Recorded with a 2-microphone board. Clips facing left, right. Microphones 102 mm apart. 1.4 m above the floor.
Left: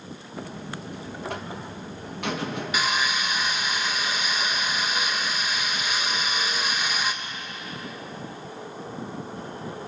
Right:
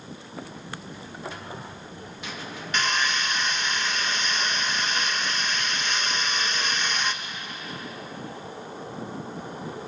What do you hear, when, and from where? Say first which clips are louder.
0.4 s a buzzer: left 4 dB; 60° left (ahead or behind), 2 m
2.7 s sawing: right 1 dB; 10° left (ahead or behind), 1.6 m